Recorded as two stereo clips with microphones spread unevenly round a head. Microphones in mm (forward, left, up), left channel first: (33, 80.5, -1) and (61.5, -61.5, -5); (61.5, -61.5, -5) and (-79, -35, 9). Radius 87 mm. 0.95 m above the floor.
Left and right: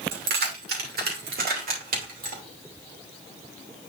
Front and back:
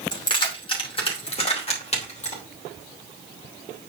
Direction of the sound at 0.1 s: 70° right.